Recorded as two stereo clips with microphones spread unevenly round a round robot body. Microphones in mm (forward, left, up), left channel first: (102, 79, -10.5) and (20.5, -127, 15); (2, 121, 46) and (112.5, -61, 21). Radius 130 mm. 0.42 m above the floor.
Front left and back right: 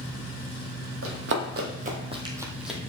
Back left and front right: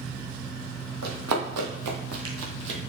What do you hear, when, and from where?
1.0 s running footsteps: 90° right, 1.3 m; by 2.8 s 20° right, 1.1 m